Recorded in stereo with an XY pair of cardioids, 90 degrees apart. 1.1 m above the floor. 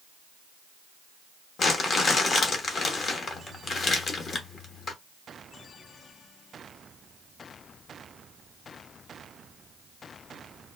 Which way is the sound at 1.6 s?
55° left.